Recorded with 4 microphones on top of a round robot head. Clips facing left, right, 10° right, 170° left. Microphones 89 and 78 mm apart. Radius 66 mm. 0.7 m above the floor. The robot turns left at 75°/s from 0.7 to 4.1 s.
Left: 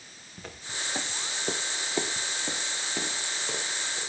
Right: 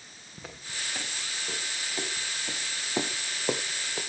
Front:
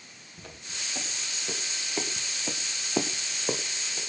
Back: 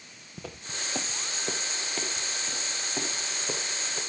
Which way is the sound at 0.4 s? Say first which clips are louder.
Left 2 dB, back 4 dB; 175° right.